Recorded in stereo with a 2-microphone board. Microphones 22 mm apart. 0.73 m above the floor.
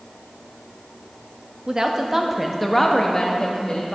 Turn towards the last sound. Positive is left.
turn(degrees=40)  # may be behind; listen again after turning